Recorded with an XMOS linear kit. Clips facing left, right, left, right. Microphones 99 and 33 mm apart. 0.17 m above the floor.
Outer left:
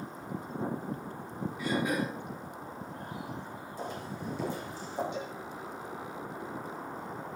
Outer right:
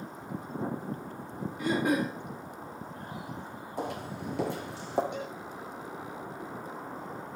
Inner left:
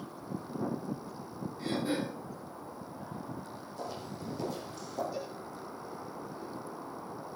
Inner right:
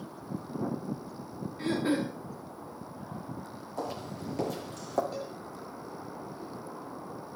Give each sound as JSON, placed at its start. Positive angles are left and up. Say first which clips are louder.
{"t": 1.6, "sound": "throat clearing", "louder": "outer right 4 dB, inner right 4 dB", "side_deg": -50, "distance_m": 9.0}
{"t": 3.8, "sound": "footsteps", "louder": "outer right 4 dB, inner right 5 dB", "side_deg": -65, "distance_m": 7.0}
{"t": 5.1, "sound": "a cowbell", "louder": "outer right 1 dB, inner right 1 dB", "side_deg": -60, "distance_m": 9.0}